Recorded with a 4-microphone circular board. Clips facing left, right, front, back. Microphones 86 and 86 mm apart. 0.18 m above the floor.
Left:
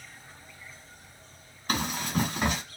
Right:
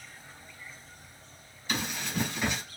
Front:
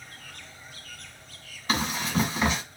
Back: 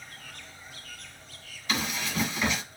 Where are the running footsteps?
50° left, 1.3 m.